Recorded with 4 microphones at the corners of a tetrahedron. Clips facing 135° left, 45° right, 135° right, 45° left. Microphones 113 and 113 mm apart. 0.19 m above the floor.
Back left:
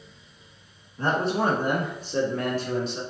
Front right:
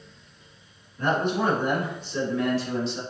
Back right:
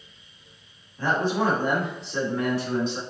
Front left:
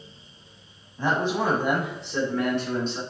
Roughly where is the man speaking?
Left.